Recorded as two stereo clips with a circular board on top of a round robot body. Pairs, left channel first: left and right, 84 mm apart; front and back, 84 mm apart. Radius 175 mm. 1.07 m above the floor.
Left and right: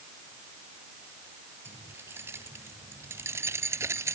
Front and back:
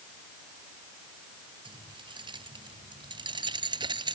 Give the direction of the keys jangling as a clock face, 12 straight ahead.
5 o'clock.